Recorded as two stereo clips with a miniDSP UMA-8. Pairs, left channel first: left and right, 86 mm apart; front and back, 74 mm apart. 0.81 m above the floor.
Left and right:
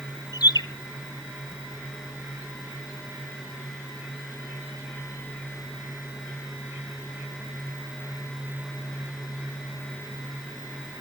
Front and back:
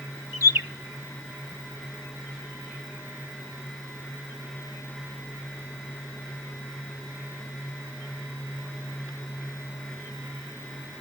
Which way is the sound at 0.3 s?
130° left.